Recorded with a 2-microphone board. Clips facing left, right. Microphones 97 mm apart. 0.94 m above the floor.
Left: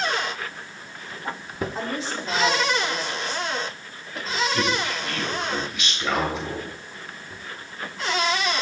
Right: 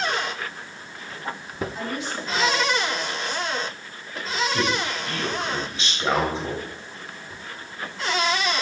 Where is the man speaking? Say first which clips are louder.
Even; 30° right (ahead or behind), 4 m.